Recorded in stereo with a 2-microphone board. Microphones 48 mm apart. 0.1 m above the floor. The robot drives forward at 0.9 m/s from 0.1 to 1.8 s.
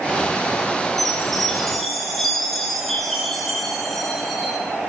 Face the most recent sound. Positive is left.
turn(degrees=5)  # may be behind; listen again after turning